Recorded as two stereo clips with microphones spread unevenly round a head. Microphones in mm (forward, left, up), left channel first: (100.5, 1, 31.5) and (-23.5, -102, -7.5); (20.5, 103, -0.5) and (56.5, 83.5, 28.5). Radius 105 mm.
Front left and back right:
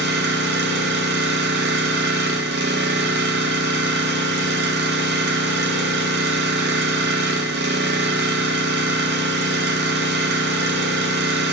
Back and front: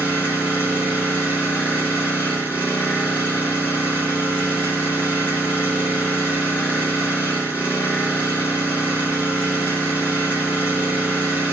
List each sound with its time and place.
0.0 s an engine running: 155° right, 1.1 m